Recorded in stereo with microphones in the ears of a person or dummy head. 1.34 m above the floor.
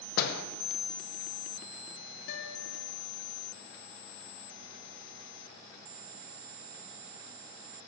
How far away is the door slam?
About 0.7 m.